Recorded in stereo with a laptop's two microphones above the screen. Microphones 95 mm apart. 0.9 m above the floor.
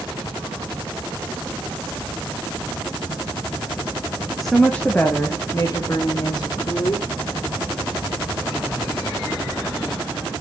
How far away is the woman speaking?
About 1.0 m.